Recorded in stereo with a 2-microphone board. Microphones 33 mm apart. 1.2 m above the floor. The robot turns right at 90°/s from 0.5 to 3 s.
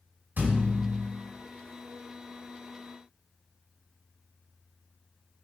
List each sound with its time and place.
0.4 s a thud: 75° right, 2 m; by 1.1 s 25° right, 2 m